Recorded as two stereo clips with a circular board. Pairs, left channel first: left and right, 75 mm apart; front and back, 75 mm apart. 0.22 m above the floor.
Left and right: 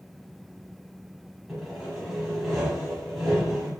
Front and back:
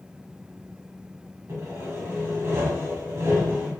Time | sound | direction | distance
1.5 | sawing | 175° right | 1.1 m